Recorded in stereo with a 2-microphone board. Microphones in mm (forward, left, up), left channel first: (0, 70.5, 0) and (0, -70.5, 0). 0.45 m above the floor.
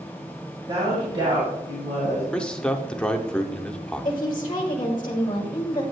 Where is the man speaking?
5° left (ahead or behind), 0.7 m.